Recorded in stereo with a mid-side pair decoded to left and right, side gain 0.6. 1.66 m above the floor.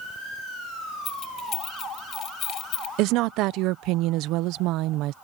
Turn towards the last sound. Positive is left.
turn(degrees=-70)